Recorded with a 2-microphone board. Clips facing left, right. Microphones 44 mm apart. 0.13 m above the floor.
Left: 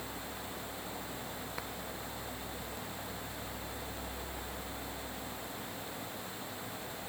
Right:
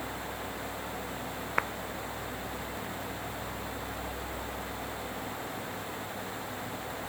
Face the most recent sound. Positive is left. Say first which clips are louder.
# right 16 dB
turn(degrees=-50)  # may be behind; listen again after turning